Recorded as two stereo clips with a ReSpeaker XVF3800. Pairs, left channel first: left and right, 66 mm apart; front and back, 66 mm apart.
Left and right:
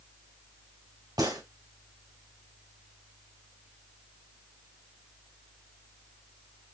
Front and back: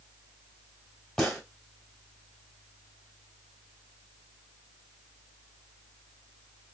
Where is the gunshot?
85° right, 1.9 m.